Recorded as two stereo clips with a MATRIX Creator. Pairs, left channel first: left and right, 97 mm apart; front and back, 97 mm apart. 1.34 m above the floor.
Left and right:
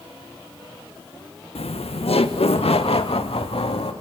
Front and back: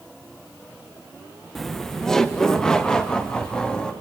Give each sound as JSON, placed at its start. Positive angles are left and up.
{"t": 1.6, "sound": "laughter", "azimuth_deg": 90, "distance_m": 1.0}